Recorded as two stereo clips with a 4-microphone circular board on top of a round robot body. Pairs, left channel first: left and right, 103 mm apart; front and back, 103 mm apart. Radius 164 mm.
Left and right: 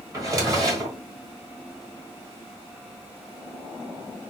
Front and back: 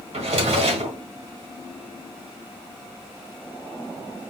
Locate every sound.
0.1 s a drawer: 150° right, 1.4 m